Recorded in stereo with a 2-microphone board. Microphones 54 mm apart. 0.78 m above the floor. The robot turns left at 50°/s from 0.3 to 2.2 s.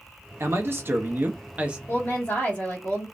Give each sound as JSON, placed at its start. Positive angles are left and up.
{"t": 0.4, "sound": "a man speaking", "azimuth_deg": -90, "distance_m": 0.7}
{"t": 1.9, "sound": "a woman speaking", "side_deg": 35, "distance_m": 1.1}